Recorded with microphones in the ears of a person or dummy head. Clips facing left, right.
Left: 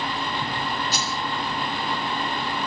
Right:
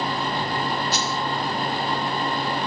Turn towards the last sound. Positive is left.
turn(degrees=70)  # may be behind; listen again after turning